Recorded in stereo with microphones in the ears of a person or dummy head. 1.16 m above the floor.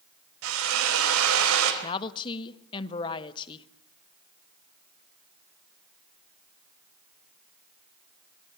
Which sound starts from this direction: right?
A drill, at 0.4 s.